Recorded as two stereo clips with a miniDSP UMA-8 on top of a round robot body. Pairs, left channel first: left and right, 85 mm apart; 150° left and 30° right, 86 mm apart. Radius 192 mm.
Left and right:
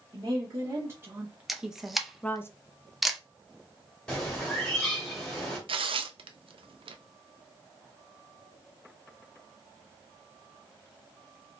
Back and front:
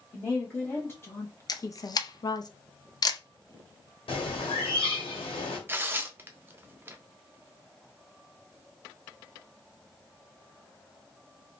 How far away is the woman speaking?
About 1.3 m.